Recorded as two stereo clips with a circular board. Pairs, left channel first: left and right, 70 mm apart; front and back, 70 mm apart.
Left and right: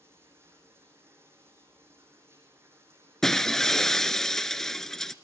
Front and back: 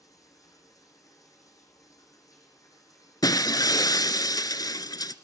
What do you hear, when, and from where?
0.0 s running water: 35° right, 6.5 m
3.2 s breaking glass: 5° left, 0.9 m